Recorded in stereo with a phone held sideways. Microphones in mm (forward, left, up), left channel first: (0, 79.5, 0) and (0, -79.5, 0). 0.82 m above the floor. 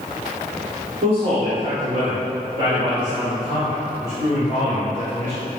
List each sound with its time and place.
1.0 s a man speaking: 60° right (ahead or behind), 2.5 m; by 5.4 s 15° right (ahead or behind), 5 m